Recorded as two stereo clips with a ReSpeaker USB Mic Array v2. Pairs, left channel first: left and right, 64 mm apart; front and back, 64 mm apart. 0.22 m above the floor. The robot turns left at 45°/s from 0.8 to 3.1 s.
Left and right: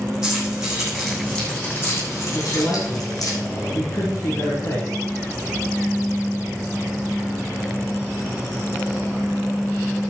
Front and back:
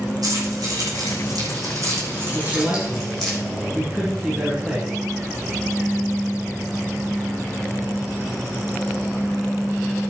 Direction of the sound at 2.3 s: 130° left.